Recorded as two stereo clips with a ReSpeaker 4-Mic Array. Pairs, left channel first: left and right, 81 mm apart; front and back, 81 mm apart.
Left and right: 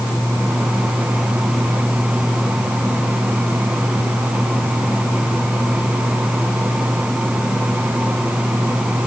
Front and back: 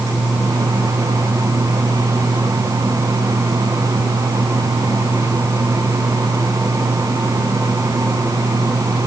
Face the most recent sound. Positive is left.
No sound to turn to.